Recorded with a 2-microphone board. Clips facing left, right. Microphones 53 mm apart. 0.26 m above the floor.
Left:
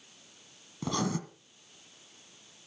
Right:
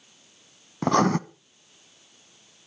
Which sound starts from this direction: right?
Writing, at 0.8 s.